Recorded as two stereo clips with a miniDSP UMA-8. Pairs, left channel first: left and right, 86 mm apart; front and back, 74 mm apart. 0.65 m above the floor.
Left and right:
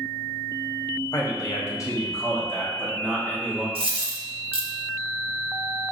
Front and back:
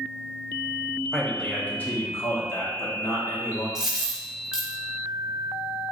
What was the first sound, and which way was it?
A man speaking, 90° left.